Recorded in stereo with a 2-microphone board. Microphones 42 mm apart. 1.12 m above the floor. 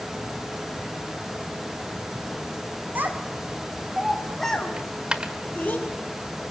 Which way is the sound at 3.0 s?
45° right (ahead or behind).